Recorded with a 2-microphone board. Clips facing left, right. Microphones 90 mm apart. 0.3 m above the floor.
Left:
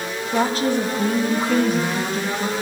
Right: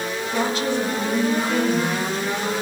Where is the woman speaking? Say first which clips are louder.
Left 3 dB; 35° left (ahead or behind), 1.4 m; by 2.5 s 75° left (ahead or behind), 3.5 m.